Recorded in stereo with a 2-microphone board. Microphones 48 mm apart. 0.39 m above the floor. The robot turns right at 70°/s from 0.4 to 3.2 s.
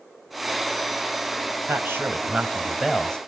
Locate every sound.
1.7 s a man speaking: 85° right, 1.9 m; by 3.2 s 20° left, 1.9 m